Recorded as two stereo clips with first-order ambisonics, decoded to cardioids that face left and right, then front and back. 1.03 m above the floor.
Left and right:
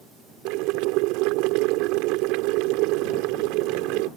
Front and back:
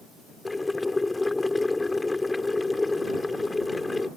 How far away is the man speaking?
No man speaking in this recording.